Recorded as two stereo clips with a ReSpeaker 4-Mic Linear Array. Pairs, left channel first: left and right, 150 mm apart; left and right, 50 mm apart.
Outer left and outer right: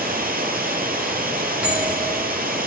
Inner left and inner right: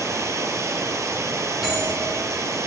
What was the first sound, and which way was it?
Running water, 85° right.